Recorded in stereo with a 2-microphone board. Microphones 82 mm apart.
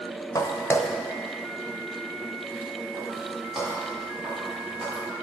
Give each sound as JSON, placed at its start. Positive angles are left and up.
{"t": 0.3, "sound": "footsteps", "side_deg": 45, "distance_m": 0.9}